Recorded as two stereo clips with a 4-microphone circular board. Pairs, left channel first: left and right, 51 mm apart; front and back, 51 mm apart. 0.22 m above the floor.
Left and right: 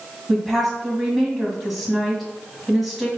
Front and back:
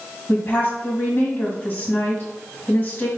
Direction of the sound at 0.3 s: 5° right.